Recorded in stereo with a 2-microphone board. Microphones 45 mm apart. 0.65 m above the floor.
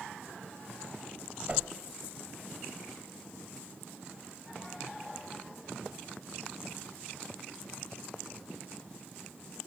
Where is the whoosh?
30° right (ahead or behind), 1.4 m.